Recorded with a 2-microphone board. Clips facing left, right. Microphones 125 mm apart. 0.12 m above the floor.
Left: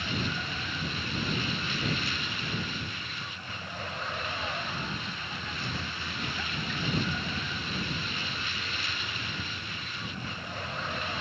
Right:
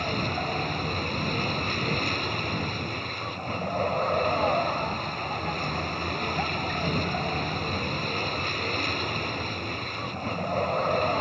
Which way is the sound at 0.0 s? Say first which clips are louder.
Right 5 dB; 50° right (ahead or behind).